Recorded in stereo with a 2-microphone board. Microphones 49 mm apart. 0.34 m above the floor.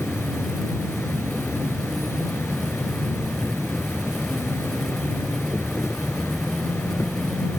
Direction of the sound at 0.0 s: 60° left (ahead or behind).